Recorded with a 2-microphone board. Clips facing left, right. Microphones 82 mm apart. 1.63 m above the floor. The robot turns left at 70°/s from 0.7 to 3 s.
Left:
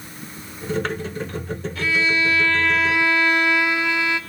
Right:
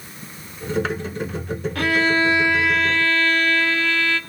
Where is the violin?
110° right, 0.9 m; by 4.2 s 165° left, 0.9 m.